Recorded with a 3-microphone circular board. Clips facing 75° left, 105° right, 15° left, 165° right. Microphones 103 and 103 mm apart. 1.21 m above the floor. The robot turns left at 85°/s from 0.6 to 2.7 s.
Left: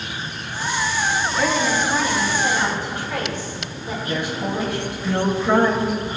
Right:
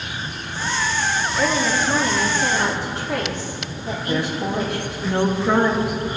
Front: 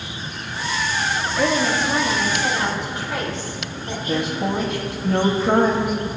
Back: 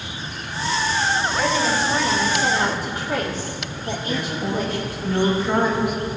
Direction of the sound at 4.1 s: 30° right.